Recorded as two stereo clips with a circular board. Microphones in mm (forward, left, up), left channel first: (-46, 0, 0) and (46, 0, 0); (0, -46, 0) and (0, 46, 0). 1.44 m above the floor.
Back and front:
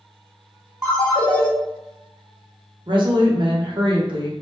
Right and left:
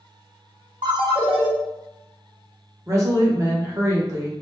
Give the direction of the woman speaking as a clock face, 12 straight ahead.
11 o'clock.